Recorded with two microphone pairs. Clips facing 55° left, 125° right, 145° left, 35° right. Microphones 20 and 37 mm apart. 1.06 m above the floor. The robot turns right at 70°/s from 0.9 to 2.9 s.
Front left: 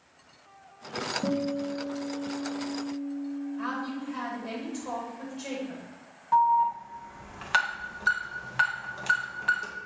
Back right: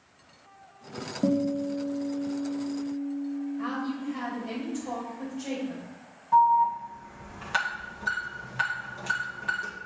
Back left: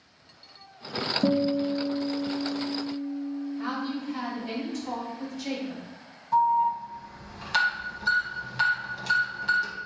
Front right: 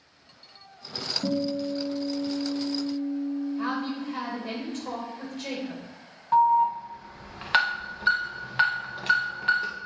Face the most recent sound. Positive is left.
turn(degrees=0)